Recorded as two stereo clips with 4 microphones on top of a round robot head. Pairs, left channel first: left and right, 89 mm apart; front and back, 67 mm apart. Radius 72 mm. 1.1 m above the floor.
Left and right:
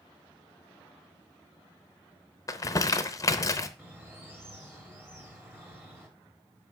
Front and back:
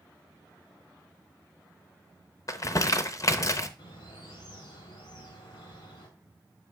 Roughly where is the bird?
Ahead.